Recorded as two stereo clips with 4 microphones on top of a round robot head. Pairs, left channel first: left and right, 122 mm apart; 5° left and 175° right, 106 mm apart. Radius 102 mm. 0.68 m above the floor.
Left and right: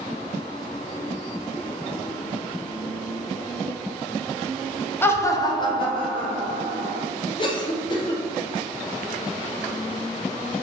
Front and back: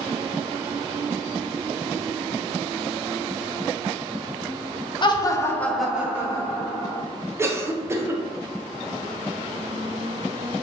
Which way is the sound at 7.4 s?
125° left.